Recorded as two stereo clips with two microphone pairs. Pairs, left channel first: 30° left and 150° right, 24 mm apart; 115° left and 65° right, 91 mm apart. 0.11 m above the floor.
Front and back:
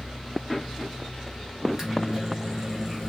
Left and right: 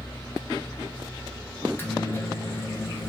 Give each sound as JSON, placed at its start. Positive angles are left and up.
{"t": 1.6, "sound": "a microwave", "azimuth_deg": 155, "distance_m": 1.1}